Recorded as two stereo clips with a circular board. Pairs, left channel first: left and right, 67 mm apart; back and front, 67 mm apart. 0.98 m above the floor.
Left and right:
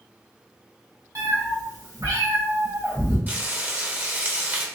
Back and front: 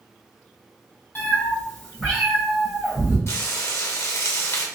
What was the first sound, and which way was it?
A cat meowing, 120° right.